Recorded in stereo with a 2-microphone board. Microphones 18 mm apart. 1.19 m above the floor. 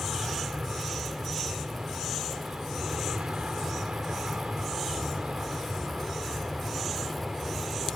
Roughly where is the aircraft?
Right.